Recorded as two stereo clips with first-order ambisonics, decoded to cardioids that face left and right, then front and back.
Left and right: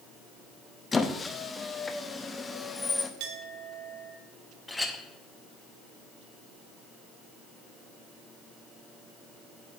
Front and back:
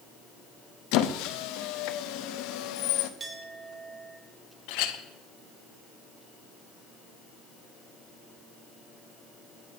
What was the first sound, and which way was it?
A squeak, 15° left.